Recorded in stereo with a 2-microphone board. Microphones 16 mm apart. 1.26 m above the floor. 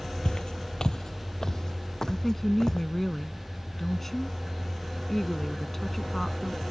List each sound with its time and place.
0.2 s footsteps: 50° left (ahead or behind); by 2.8 s 30° left (ahead or behind)
2.1 s a woman speaking: 15° left (ahead or behind)